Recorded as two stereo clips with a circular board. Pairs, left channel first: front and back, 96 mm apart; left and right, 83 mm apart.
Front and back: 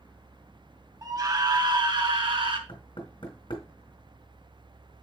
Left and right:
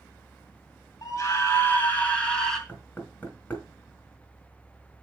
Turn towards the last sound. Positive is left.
turn(degrees=20)